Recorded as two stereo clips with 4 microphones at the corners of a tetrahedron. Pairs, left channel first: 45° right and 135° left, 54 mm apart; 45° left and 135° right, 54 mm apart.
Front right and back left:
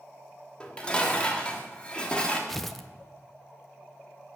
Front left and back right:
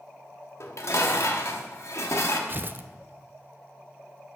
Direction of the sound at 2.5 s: 130° right.